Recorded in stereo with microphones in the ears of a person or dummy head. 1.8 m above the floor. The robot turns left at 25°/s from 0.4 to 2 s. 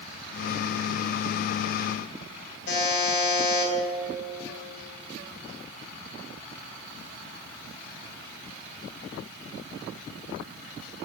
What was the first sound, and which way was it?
A buzzer, 65° left (ahead or behind).